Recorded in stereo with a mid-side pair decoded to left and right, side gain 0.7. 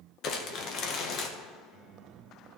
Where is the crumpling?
50° left, 1.4 m.